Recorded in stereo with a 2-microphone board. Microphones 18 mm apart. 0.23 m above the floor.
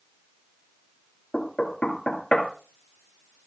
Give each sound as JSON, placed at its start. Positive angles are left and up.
{"t": 1.3, "sound": "knocking", "side_deg": 50, "distance_m": 2.0}